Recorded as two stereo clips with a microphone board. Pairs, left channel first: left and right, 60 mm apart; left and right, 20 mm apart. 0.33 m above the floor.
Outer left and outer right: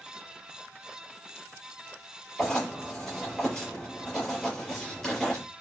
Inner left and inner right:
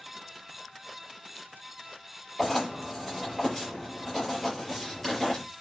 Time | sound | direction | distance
2.4 | writing | 15° left (ahead or behind) | 6.5 m